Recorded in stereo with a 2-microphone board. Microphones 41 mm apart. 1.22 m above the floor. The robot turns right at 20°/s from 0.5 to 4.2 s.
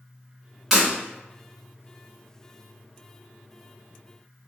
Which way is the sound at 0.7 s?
5° right (ahead or behind).